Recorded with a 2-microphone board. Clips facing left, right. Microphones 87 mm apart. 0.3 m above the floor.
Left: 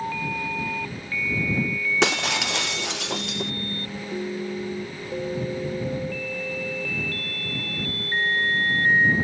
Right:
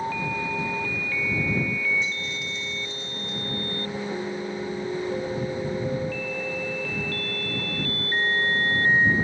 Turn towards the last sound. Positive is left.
turn(degrees=80)